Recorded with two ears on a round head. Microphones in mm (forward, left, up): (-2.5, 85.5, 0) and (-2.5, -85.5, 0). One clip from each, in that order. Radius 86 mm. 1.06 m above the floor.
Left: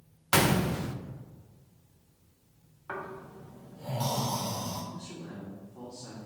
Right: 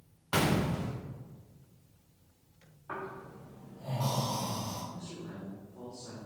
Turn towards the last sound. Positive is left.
turn(degrees=40)  # may be behind; listen again after turning